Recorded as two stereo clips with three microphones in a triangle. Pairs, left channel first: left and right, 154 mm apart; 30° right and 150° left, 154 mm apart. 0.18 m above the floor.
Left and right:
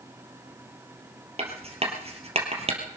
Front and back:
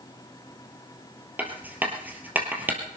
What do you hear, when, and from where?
1.4 s writing: 130° right, 3 m